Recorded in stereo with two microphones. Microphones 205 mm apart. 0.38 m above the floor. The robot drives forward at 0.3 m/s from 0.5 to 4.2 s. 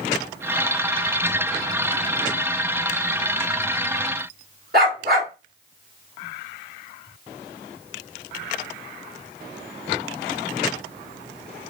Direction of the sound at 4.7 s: 50° right (ahead or behind).